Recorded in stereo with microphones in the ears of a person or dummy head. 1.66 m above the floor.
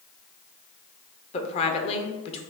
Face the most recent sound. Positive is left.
turn(degrees=35)  # may be behind; listen again after turning